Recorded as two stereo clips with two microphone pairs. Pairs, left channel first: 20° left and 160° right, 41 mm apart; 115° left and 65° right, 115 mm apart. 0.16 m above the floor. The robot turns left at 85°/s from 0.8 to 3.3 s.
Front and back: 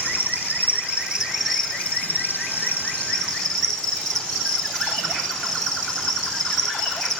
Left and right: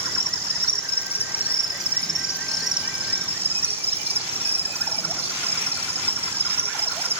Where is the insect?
145° left, 2.0 m; by 7.2 s 65° right, 2.0 m.